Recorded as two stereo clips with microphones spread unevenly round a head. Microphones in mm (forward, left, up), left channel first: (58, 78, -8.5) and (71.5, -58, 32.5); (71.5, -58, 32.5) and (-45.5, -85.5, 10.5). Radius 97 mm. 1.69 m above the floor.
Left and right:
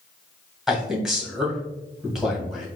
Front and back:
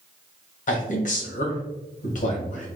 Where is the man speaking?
Straight ahead, 1.8 m.